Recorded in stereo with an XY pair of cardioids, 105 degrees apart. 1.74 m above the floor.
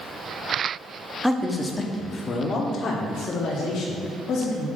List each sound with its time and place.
1.2 s a man speaking: 5° left, 1.1 m; by 4.7 s 70° left, 2.5 m